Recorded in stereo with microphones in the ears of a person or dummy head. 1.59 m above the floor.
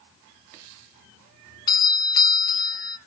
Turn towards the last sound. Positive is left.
turn(degrees=20)  # may be behind; listen again after turning